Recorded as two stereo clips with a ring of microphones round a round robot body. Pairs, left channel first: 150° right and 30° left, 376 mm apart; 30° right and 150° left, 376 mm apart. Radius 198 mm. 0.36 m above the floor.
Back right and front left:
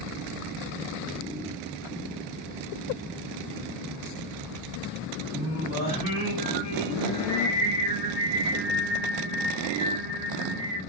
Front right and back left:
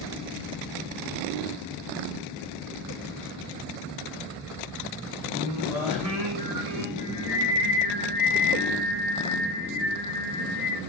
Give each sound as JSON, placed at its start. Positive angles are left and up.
{"t": 5.3, "sound": "singing", "azimuth_deg": 175, "distance_m": 1.7}